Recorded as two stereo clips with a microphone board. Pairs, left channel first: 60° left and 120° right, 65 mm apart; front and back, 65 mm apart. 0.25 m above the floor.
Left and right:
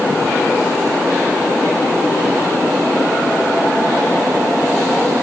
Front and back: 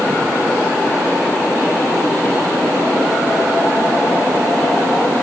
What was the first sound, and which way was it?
Only background noise.